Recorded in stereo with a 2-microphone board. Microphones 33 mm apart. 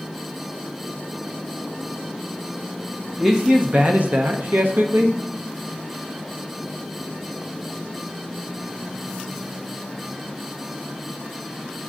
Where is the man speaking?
15° right (ahead or behind), 0.7 m; by 5.2 s 85° right, 1.2 m.